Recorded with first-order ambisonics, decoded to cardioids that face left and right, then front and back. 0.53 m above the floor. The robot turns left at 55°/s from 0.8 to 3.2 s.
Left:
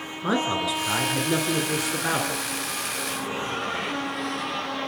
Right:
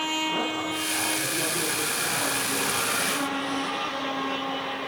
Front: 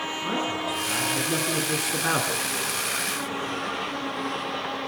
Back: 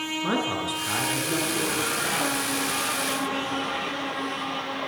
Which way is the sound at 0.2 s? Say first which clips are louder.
Left 2 dB, back 1 dB; 110° left.